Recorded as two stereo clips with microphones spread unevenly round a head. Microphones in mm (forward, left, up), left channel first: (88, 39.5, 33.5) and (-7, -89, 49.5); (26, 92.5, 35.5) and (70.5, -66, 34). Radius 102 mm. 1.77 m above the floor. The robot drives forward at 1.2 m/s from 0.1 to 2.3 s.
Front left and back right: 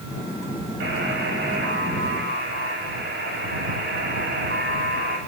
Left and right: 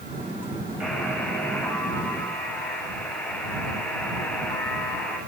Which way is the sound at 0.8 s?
165° right.